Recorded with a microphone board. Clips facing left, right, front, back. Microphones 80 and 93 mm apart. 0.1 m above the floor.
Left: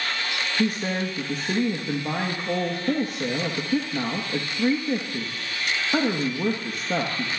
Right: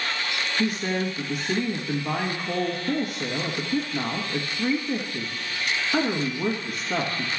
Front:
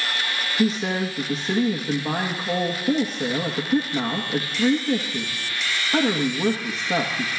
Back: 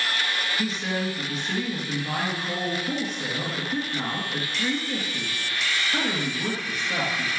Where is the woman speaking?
45° left, 2.5 m.